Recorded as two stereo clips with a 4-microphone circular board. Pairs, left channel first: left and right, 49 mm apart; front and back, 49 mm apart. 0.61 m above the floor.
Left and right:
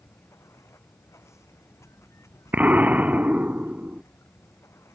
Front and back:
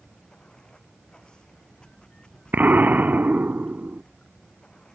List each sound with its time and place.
0.0 s running water: 75° left
2.5 s an explosion: 135° right